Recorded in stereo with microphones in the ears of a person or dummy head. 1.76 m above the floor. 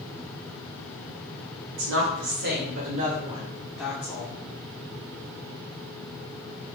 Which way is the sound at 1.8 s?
65° right (ahead or behind).